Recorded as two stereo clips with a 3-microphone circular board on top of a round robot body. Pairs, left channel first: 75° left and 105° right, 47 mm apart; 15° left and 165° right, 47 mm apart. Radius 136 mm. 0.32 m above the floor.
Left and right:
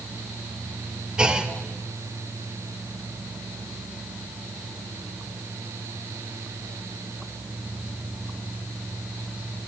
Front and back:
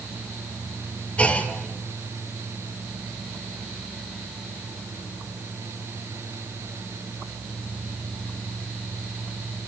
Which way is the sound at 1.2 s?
40° right.